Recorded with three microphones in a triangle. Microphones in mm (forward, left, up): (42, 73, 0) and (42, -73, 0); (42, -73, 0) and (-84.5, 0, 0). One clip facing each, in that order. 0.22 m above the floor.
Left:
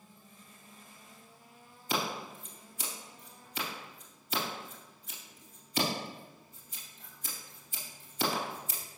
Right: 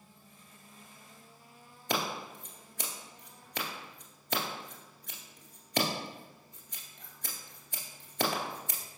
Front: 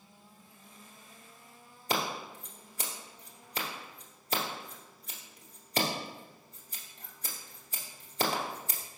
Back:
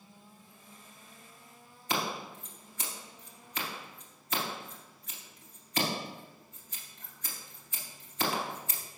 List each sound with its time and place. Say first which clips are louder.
1.9 s scissors: right 1 dB, front 1 dB; 85° right, 1.7 m